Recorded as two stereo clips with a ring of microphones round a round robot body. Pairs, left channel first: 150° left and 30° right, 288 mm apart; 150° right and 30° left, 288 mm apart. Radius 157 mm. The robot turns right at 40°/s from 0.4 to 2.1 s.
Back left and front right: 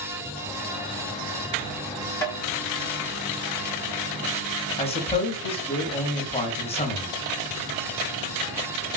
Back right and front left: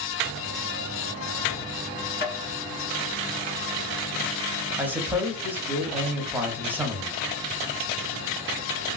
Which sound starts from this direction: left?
A man speaking, at 4.8 s.